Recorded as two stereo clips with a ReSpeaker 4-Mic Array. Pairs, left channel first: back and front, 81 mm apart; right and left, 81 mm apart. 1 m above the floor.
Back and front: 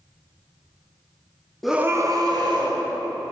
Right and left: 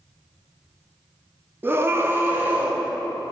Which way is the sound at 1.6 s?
100° left.